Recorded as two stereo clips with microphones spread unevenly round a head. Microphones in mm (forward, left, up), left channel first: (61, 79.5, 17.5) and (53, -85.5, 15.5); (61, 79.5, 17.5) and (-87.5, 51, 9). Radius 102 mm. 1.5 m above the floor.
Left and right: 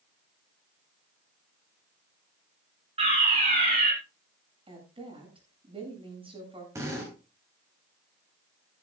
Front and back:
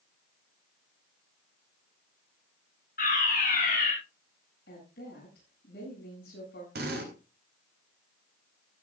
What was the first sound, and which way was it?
A fire alarm, 40° right.